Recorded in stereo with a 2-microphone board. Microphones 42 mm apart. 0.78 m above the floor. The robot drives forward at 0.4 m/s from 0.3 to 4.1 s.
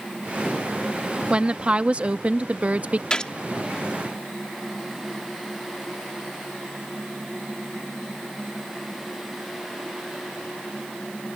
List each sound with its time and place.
1.3 s a woman speaking: 30° right (ahead or behind); by 3.0 s 40° right (ahead or behind)
3.1 s a gunshot: 20° left (ahead or behind)